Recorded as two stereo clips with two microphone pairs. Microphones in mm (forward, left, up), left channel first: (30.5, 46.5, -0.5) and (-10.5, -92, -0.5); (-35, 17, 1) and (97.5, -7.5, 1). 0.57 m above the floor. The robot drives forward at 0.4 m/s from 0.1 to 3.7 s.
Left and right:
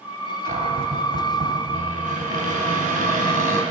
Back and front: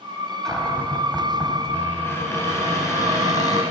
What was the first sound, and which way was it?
A cupboard door, 105° right.